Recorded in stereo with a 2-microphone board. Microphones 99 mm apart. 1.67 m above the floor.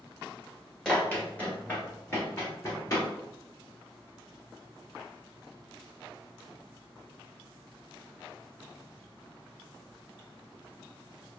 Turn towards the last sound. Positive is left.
turn(degrees=35)  # may be behind; listen again after turning